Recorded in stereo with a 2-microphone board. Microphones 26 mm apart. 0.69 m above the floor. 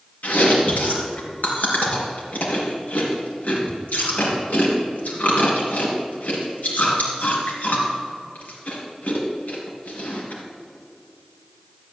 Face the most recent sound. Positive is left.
turn(degrees=75)  # may be behind; listen again after turning